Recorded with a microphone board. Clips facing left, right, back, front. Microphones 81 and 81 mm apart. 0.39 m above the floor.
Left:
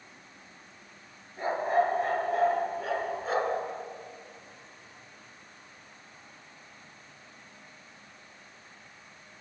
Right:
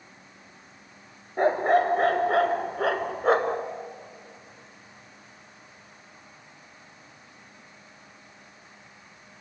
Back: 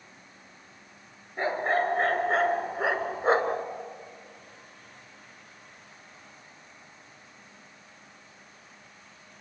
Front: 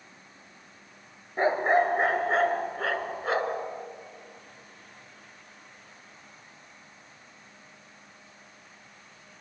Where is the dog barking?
65° right, 1.7 m; by 3.6 s 130° right, 1.2 m.